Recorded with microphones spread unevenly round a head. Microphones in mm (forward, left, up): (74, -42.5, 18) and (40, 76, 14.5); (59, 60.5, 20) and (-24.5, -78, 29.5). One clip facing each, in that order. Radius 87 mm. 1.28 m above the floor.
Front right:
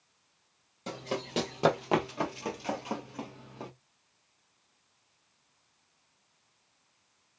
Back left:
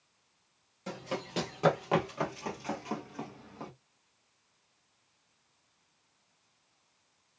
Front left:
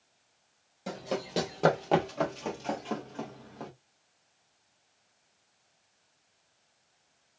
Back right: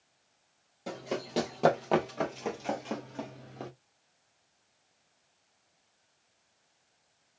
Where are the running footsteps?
25° right, 1.9 m; by 3.7 s 115° right, 1.3 m.